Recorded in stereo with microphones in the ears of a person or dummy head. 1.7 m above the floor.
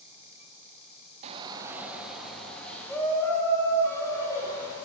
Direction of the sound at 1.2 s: 40° right (ahead or behind).